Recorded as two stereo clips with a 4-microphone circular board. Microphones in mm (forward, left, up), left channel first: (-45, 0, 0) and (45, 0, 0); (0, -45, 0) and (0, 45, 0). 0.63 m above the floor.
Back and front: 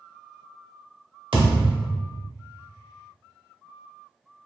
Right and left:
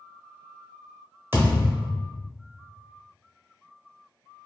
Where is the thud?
25° left, 0.9 m.